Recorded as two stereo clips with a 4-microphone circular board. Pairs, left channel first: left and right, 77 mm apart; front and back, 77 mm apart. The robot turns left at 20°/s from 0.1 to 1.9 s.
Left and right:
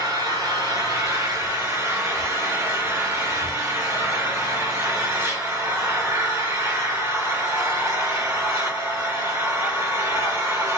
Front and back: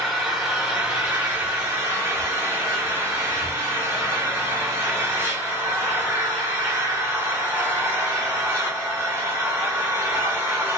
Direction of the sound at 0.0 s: 90° right.